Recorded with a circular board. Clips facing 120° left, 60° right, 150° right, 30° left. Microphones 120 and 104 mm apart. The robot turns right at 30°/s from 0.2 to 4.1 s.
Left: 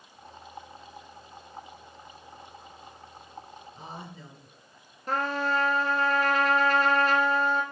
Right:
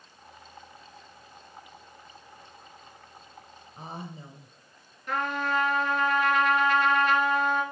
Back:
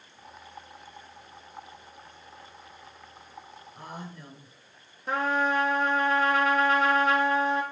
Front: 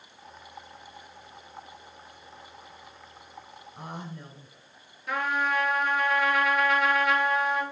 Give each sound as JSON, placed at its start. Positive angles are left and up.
{"t": 3.8, "sound": "a woman speaking", "azimuth_deg": -30, "distance_m": 1.6}
{"t": 5.1, "sound": "a trumpet", "azimuth_deg": 165, "distance_m": 1.0}